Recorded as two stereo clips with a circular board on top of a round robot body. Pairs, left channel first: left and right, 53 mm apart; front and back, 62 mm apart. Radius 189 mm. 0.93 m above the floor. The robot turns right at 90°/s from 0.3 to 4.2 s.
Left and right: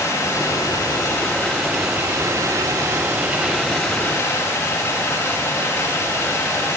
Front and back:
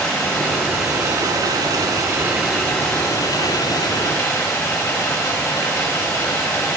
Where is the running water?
70° left, 1.1 m; by 6.8 s 65° left, 1.1 m.